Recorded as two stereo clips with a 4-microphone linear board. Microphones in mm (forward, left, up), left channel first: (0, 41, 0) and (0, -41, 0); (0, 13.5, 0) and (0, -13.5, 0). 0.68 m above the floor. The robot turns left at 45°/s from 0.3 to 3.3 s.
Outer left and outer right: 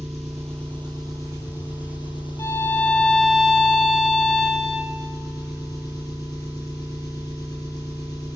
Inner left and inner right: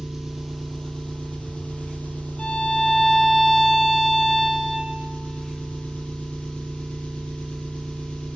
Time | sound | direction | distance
0.0 | an engine running | straight behind | 6 m
2.4 | a violin | 40° left | 1.2 m